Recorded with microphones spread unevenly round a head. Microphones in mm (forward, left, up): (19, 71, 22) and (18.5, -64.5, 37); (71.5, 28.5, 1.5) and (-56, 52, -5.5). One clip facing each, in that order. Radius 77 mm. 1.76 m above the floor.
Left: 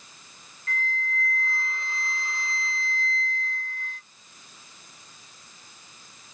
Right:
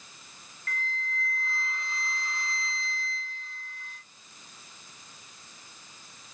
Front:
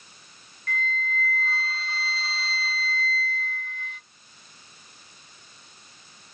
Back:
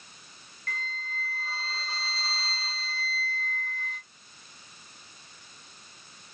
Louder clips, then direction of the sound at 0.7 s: Left 4 dB, front 8 dB; 155° left.